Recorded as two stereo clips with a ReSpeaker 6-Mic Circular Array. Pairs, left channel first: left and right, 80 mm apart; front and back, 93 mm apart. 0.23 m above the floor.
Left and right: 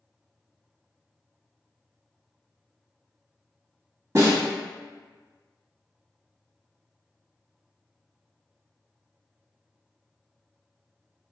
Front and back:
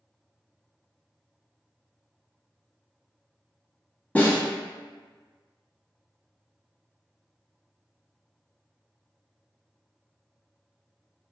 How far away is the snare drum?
About 1.0 m.